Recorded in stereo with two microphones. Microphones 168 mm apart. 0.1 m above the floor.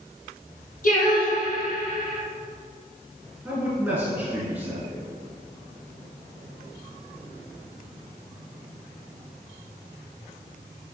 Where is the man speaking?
5° right (ahead or behind), 2 m.